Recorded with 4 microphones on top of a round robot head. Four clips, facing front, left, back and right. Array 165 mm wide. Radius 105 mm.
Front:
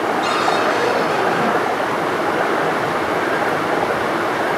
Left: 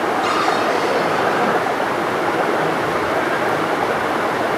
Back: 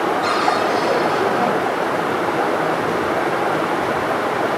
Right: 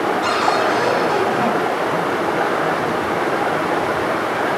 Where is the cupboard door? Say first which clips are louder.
Even, even; 60° right, 4.5 m.